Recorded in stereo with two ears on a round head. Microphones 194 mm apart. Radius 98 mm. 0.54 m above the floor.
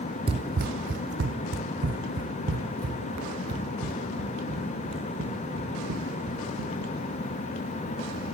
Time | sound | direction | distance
0.3 | running footsteps | 25° right (ahead or behind) | 0.7 m